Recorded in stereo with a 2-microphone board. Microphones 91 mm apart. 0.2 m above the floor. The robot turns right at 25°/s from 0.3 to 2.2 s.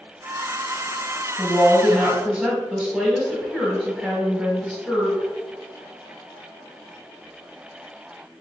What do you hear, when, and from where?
1.4 s a woman speaking: 5° left (ahead or behind), 1.2 m; by 5.3 s 10° right (ahead or behind), 1.2 m